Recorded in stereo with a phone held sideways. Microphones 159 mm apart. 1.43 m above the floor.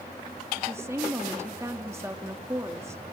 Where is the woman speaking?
15° right (ahead or behind), 2 m.